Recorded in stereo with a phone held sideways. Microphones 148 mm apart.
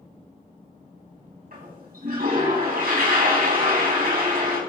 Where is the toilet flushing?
75° right (ahead or behind), 3.5 m.